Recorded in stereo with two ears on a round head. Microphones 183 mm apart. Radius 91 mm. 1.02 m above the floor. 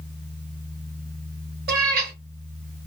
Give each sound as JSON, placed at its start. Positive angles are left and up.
{"t": 1.7, "sound": "a cat meowing", "side_deg": -50, "distance_m": 1.3}